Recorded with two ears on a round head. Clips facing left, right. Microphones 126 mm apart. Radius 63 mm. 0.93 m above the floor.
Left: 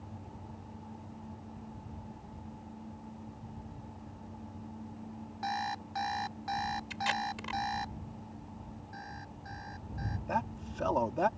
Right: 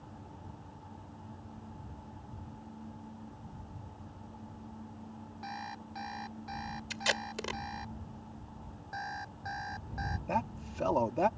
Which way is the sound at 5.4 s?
65° left (ahead or behind).